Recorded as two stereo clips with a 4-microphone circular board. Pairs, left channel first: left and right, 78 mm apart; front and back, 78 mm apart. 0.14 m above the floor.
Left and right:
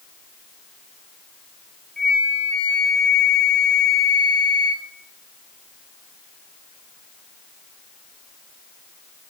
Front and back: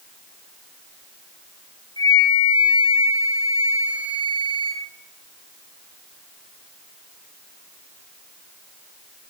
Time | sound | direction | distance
2.0 | a flute | 10° left | 1.1 m